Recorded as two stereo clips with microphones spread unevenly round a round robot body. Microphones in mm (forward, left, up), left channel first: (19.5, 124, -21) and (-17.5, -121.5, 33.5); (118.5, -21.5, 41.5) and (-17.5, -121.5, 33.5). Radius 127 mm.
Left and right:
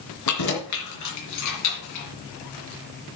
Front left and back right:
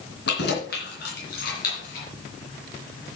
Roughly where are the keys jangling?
Left.